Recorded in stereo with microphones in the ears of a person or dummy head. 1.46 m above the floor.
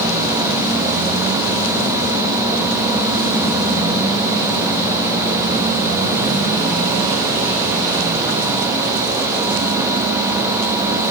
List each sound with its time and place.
Only background noise.